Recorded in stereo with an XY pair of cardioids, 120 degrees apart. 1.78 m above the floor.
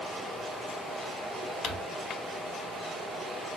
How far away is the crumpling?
About 0.9 m.